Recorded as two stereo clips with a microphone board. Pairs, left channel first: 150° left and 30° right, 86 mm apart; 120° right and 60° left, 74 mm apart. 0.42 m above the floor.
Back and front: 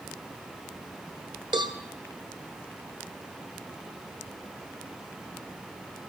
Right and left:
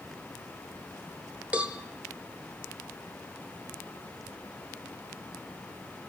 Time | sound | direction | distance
1.5 | a cowbell | 10° right | 0.6 m